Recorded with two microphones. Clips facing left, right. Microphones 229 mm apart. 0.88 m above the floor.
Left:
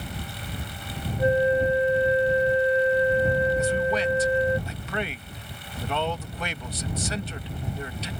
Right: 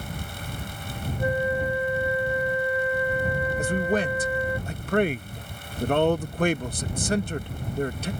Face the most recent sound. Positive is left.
turn(degrees=-50)  # may be behind; listen again after turning